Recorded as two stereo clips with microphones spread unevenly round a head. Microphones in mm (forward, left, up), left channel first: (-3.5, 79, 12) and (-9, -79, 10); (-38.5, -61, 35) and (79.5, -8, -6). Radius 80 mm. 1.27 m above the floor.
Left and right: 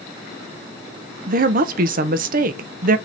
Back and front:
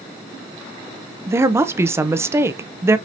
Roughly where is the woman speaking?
Ahead right.